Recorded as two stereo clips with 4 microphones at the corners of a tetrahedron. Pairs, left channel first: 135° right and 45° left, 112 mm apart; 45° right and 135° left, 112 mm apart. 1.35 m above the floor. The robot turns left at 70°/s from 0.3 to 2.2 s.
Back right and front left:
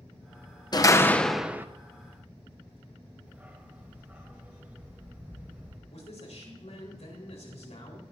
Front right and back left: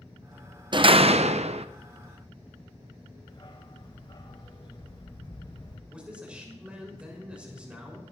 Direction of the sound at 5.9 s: 145° right.